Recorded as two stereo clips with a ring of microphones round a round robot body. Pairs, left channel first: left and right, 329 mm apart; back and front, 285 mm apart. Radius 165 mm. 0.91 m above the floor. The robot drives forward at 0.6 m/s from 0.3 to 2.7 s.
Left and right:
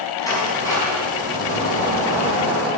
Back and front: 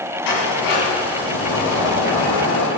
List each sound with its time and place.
0.2 s a sliding door: 170° left, 5 m